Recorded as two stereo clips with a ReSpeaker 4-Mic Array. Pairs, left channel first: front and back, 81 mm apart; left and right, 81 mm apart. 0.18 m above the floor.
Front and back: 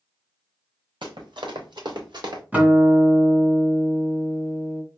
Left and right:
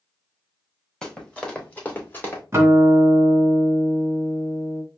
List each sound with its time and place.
1.0 s running footsteps: 170° left, 3 m; by 2.4 s 150° left, 2.5 m
2.5 s a guitar: 120° right, 1.8 m